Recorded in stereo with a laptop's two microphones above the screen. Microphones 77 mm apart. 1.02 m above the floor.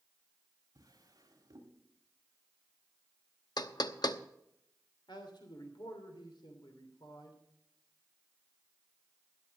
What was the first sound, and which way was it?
A drawer, 50° right (ahead or behind).